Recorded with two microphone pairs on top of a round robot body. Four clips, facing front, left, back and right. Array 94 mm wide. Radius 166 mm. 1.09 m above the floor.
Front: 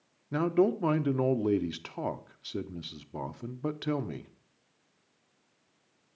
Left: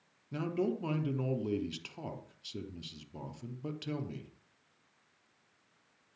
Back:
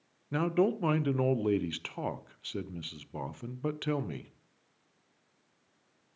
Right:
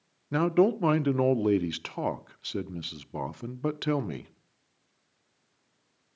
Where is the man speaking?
90° right, 0.7 m.